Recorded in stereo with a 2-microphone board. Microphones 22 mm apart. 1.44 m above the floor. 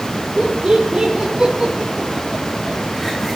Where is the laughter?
40° right (ahead or behind), 5 m; by 3.4 s 5° left (ahead or behind), 4 m.